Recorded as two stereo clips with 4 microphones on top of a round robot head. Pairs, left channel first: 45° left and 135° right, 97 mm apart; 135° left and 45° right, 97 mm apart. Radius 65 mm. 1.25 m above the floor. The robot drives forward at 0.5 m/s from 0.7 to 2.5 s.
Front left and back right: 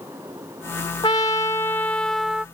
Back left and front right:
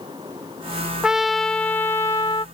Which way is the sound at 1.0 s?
30° left.